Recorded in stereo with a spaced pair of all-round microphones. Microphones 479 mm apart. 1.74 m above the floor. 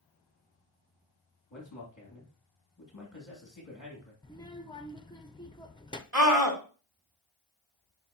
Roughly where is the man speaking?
Left.